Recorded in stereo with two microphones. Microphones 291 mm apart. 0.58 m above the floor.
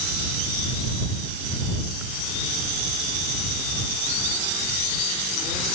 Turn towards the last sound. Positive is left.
No sound to turn to.